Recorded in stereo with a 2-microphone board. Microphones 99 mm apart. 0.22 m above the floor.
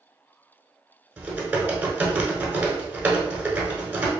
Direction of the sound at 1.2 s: 20° right (ahead or behind).